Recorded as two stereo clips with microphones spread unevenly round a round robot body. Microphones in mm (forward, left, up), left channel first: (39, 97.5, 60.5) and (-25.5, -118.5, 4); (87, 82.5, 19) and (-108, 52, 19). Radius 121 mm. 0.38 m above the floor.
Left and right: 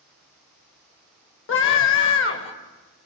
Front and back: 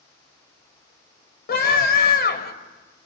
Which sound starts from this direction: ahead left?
A scream, at 1.5 s.